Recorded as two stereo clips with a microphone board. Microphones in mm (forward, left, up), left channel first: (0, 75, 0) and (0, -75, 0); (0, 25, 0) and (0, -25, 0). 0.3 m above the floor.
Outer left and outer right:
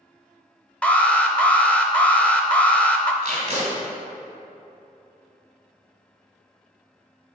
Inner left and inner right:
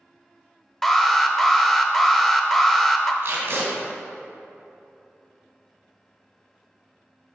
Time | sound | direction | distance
0.8 | an alarm | 10° left (ahead or behind) | 0.6 m
3.2 | tape being pulled | 50° right (ahead or behind) | 2 m